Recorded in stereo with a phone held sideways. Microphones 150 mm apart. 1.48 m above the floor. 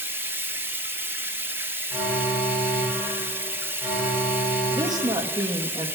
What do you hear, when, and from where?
0.0 s running water: 15° right (ahead or behind), 1.0 m
1.9 s an alarm: 5° right (ahead or behind), 8 m
4.7 s a woman speaking: 25° right (ahead or behind), 1.9 m